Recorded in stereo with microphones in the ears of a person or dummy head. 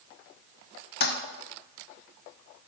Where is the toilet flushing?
45° left (ahead or behind), 0.6 m.